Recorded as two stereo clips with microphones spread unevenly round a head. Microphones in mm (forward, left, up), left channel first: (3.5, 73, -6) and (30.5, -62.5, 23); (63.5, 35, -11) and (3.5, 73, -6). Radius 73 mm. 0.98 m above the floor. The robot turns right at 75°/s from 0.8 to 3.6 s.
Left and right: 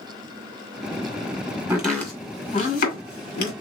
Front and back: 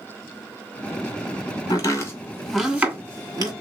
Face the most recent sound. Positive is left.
turn(degrees=140)